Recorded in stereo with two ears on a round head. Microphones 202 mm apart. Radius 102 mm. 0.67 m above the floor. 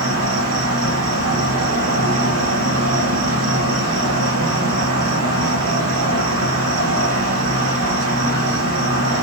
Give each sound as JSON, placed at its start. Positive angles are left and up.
{"t": 0.0, "sound": "an insect", "side_deg": -75, "distance_m": 1.3}